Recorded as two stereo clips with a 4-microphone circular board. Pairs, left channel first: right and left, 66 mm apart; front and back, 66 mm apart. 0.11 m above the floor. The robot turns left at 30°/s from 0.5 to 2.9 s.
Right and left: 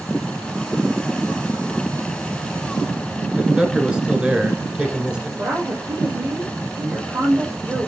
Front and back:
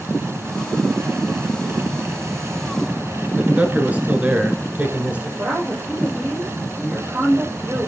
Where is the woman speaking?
120° left, 5 m.